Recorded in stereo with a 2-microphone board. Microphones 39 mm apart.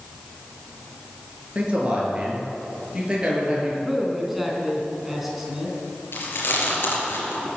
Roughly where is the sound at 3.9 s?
Centre.